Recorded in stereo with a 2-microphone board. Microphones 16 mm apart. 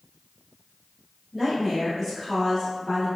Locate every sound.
1.3 s a woman speaking: centre (ahead or behind), 1.7 m; by 3.1 s 35° left (ahead or behind), 1.5 m